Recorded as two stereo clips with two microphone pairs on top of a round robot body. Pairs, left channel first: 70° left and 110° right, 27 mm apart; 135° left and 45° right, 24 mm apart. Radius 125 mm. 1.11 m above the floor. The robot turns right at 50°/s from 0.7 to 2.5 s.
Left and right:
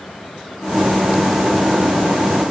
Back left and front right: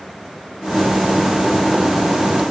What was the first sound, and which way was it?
Only background noise.